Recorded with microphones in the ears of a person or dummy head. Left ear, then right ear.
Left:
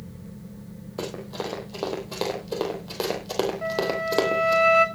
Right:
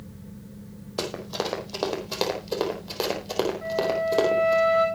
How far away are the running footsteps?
About 4.5 m.